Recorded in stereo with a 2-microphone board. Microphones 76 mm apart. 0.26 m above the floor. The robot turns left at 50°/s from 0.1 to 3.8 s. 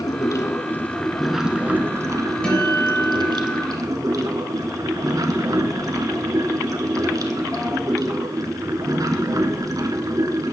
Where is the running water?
60° left, 0.9 m; by 10.5 s 125° right, 0.9 m.